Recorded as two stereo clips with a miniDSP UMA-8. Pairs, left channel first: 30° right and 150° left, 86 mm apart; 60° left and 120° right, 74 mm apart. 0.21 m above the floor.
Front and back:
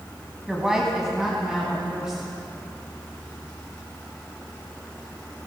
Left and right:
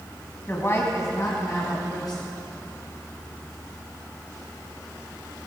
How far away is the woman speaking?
About 1.6 m.